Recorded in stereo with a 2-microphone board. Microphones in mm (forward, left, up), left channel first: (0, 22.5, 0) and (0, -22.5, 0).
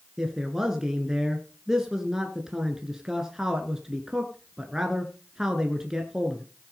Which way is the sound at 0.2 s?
10° right (ahead or behind).